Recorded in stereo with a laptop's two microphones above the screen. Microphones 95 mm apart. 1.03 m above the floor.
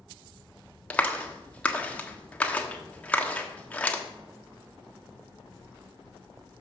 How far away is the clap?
About 1.5 m.